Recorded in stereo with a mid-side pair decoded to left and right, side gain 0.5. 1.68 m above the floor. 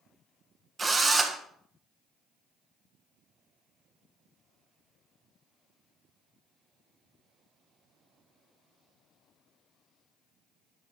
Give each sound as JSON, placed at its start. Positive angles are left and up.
{"t": 0.8, "sound": "a drill", "azimuth_deg": -30, "distance_m": 1.4}